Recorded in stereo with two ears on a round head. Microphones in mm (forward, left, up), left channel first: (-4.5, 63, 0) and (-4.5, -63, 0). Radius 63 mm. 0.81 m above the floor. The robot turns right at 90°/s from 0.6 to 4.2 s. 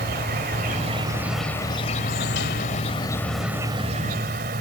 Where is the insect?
70° right; by 4.6 s 105° right.